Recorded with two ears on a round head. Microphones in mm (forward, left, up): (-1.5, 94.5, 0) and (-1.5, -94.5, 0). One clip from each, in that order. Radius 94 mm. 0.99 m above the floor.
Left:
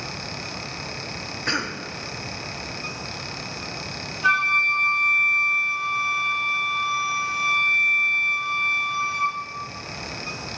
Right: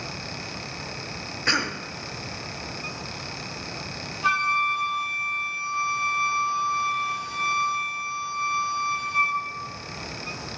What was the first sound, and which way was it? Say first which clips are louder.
A cough: right 3 dB; 20° right (ahead or behind).